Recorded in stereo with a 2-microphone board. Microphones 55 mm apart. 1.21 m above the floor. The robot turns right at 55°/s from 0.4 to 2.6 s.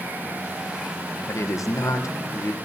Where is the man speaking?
60° left, 0.9 m; by 2.5 s 135° left, 0.9 m.